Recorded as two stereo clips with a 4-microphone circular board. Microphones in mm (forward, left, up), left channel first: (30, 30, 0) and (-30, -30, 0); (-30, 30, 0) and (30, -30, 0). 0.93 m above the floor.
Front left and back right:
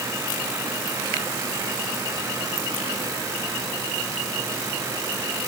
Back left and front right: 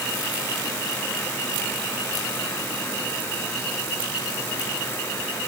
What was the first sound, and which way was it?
Only background noise.